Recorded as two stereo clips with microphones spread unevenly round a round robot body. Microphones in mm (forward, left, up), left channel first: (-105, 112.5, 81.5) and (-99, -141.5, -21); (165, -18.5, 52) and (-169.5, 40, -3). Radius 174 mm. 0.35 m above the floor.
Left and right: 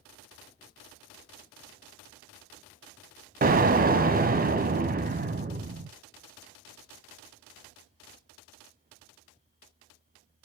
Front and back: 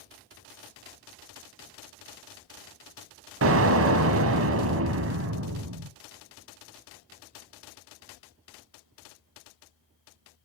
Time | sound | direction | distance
3.4 | an explosion | 140° right | 0.9 m